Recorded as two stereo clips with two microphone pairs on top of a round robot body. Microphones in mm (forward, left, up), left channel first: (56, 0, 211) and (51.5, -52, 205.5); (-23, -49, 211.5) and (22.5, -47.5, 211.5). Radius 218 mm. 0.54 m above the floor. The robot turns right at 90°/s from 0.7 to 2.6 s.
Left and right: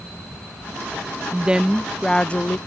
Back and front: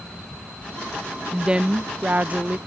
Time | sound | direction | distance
1.3 | a woman speaking | 70° right | ?